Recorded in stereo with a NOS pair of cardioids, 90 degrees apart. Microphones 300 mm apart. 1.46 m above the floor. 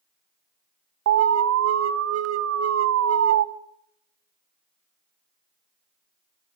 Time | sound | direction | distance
1.1 | an alarm | 55° right | 1.4 m